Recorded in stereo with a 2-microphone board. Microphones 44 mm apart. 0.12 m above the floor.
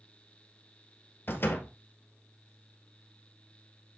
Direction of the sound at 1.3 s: 55° left (ahead or behind).